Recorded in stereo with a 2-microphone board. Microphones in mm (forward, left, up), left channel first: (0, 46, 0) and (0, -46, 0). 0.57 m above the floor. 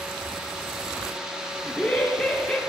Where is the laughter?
10° left (ahead or behind), 0.7 m.